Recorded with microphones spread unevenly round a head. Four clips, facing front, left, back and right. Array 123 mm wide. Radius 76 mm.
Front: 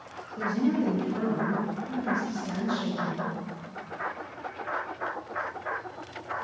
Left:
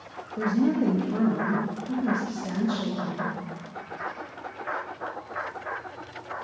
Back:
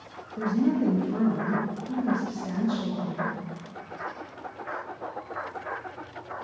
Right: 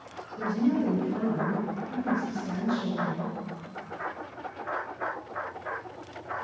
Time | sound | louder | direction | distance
0.4 | a woman speaking | left 3 dB, back 2 dB | 95° left | 2.5 m